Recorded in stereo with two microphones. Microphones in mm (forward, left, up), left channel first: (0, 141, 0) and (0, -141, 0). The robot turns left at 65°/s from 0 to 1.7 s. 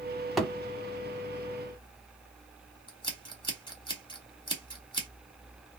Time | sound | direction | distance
0.4 | a thud | centre (ahead or behind) | 0.6 m
2.9 | scissors | 15° left (ahead or behind) | 0.9 m